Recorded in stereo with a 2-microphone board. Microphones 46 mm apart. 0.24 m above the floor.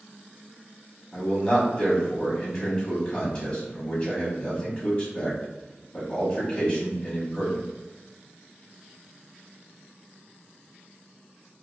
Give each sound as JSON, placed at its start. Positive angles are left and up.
{"t": 1.1, "sound": "a man speaking", "side_deg": 20, "distance_m": 1.3}